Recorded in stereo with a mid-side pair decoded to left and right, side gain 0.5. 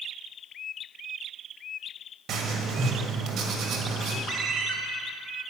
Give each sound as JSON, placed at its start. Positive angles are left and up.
{"t": 2.3, "sound": "writing", "azimuth_deg": -50, "distance_m": 1.5}
{"t": 4.3, "sound": "a ringtone", "azimuth_deg": -50, "distance_m": 1.7}